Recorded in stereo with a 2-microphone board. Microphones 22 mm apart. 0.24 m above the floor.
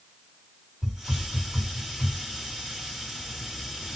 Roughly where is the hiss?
Right.